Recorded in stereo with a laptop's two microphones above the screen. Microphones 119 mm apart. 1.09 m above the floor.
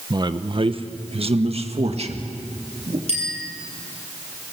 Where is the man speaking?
35° right (ahead or behind), 0.8 m; by 3.0 s 60° right (ahead or behind), 2.5 m.